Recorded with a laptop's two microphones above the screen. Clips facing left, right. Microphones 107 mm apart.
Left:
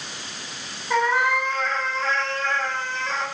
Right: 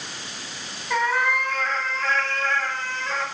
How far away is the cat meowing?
About 4.5 m.